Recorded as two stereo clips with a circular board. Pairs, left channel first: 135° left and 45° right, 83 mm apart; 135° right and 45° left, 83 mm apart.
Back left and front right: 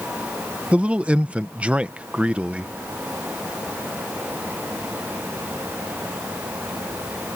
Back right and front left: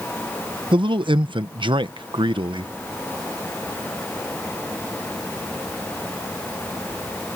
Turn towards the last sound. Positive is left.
turn(degrees=30)